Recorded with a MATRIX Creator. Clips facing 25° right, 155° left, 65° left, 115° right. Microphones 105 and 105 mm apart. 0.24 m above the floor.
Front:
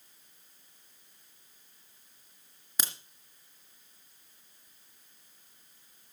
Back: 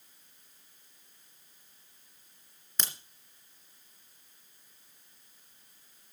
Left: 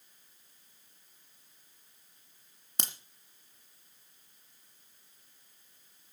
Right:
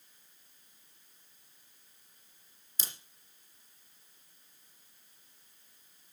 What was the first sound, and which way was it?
A crack, 60° left.